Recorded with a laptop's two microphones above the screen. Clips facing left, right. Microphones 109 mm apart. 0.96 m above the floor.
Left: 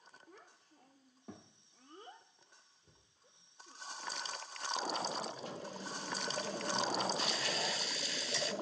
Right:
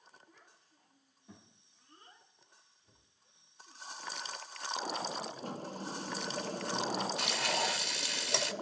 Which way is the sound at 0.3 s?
55° left (ahead or behind).